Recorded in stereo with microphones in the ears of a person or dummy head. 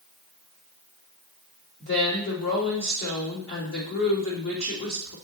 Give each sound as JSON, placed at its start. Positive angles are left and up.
{"t": 1.8, "sound": "a woman speaking", "side_deg": 50, "distance_m": 3.5}